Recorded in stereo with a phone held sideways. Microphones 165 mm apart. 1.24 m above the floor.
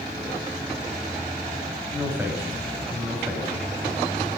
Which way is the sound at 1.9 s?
10° right (ahead or behind).